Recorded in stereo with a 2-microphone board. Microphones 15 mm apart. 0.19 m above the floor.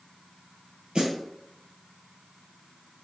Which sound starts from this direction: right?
A snare drum, at 0.9 s.